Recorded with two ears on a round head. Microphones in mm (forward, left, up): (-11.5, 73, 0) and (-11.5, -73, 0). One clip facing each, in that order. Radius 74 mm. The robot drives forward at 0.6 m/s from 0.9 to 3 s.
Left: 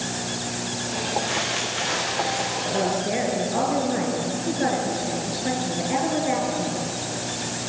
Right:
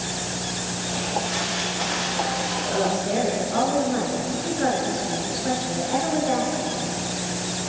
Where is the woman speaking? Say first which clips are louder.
Right 1 dB; 15° left (ahead or behind), 6.5 m.